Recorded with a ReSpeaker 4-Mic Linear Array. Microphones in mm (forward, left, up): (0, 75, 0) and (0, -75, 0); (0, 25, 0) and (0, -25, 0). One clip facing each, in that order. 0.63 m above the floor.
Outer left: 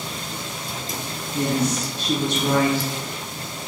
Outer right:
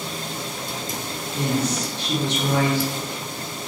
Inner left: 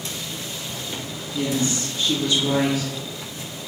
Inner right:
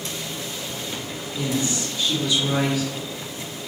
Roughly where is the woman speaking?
Left.